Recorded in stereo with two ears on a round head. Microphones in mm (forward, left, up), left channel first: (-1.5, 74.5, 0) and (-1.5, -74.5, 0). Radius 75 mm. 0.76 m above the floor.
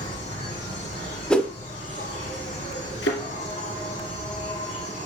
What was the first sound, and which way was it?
An insect, 45° left (ahead or behind).